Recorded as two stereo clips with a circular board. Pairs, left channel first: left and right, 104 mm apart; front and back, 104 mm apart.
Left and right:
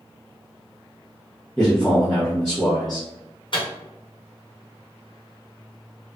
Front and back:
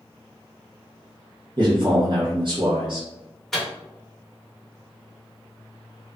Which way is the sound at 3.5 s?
85° left.